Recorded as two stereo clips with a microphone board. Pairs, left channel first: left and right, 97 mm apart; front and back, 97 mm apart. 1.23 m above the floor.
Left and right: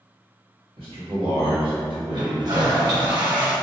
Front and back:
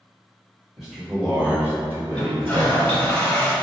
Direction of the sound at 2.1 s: 75° right.